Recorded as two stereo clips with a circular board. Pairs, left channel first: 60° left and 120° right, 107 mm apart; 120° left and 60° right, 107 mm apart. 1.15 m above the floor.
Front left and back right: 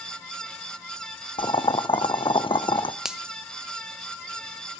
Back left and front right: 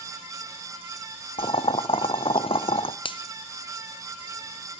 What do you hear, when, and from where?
1.4 s boiling: 95° left, 0.6 m
3.0 s a finger snap: 155° left, 0.8 m